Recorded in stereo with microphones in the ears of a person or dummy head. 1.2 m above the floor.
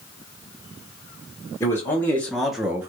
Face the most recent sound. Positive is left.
turn(degrees=-20)  # may be behind; listen again after turning